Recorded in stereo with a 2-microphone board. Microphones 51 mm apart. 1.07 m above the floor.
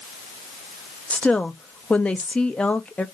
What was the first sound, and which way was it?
A woman speaking, 25° left (ahead or behind).